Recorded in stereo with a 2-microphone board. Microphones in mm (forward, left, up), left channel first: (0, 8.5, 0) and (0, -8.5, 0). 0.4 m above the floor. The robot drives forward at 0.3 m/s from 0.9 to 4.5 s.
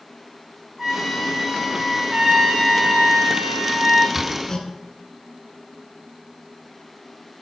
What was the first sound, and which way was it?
A trumpet, 15° right (ahead or behind).